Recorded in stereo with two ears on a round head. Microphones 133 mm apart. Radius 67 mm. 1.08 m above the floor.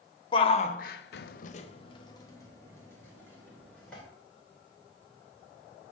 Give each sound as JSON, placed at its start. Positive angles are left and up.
{"t": 0.3, "sound": "a shout", "side_deg": 35, "distance_m": 0.9}